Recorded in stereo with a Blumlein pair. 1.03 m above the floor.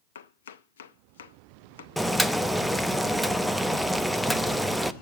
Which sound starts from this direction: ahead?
Boiling, at 2.0 s.